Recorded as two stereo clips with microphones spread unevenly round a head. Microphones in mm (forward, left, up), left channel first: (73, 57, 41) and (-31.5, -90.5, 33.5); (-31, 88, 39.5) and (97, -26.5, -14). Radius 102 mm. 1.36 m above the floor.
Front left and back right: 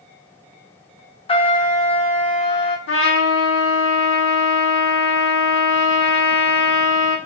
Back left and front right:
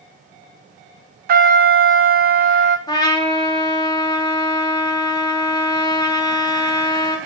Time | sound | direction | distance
1.3 | a trumpet | straight ahead | 0.5 m
2.9 | a trumpet | 65° left | 1.0 m